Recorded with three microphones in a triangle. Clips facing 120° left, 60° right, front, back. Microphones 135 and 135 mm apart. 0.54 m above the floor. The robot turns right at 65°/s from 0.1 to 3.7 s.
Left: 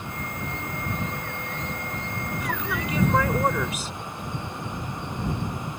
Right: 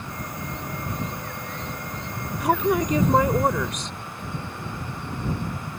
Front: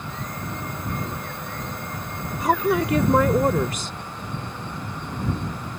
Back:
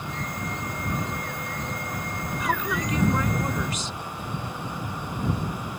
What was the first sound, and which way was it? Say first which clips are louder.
A woman speaking: right 12 dB, front 8 dB; 50° right.